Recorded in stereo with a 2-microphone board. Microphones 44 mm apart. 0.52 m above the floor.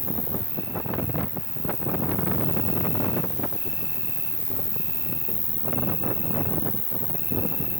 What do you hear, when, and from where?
0.0 s an insect: 85° right, 0.8 m